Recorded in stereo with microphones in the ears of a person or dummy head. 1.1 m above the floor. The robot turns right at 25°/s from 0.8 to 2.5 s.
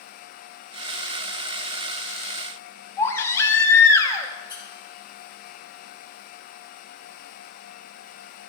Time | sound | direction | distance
3.0 | a baby crying | 20° left (ahead or behind) | 1.1 m
4.5 | a squeak | 20° left (ahead or behind) | 2.5 m